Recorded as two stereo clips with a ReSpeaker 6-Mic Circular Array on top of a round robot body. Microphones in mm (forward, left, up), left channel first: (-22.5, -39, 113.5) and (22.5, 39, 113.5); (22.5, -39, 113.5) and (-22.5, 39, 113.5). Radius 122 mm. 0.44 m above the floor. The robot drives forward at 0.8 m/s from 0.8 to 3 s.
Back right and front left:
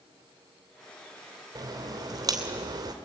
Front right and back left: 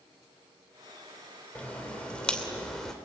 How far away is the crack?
About 3.5 m.